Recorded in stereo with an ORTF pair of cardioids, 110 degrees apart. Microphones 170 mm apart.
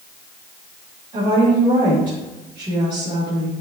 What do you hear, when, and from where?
1.1 s a woman speaking: 30° right, 3 m